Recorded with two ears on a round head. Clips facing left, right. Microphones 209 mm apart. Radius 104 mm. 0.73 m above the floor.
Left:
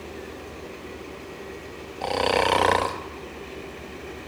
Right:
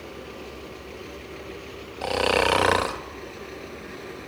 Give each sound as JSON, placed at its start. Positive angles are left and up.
{"t": 2.0, "sound": "snoring", "side_deg": -5, "distance_m": 1.0}